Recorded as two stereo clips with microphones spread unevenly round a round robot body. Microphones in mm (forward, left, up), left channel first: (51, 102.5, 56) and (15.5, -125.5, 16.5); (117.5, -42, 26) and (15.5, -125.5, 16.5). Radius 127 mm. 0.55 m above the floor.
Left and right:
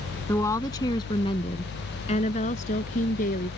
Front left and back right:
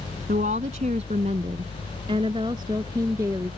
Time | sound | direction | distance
0.3 | a woman speaking | 160° left | ?